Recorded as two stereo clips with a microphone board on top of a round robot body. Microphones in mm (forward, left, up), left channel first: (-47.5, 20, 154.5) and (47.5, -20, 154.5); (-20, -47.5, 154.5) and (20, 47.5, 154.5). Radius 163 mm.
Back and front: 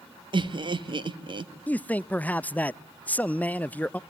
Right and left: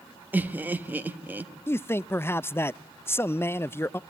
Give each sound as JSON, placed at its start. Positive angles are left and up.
{"t": 0.3, "sound": "laughter", "azimuth_deg": 0, "distance_m": 1.4}
{"t": 1.7, "sound": "a man speaking", "azimuth_deg": -145, "distance_m": 0.5}